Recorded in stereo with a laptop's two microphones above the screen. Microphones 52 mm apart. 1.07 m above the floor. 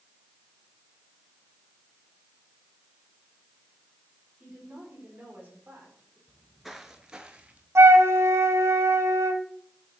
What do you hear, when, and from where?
4.4 s a woman speaking: 15° right (ahead or behind), 3 m; by 6.2 s 45° right (ahead or behind), 3.5 m
6.3 s footsteps: 5° left (ahead or behind), 1.0 m; by 7.7 s 25° right (ahead or behind), 1.3 m
7.8 s a flute: 65° right (ahead or behind), 1.3 m